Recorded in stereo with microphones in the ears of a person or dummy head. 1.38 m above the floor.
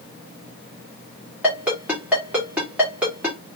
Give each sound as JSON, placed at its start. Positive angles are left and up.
{"t": 1.4, "sound": "a ringtone", "side_deg": -5, "distance_m": 2.5}